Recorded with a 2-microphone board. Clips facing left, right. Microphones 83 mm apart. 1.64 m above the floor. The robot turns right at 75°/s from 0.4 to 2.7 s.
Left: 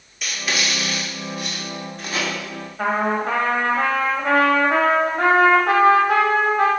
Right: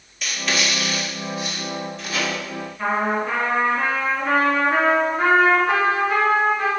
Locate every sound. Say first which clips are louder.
0.2 s writing: right 1 dB; centre (ahead or behind), 2 m; by 2.2 s 35° left (ahead or behind), 2 m
2.8 s a trumpet: left 1 dB; 55° left (ahead or behind), 1.6 m